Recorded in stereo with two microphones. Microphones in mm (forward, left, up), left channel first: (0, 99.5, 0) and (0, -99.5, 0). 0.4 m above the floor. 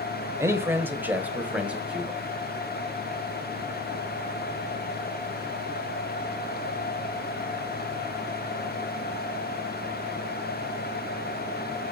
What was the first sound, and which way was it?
A man speaking, 15° right (ahead or behind).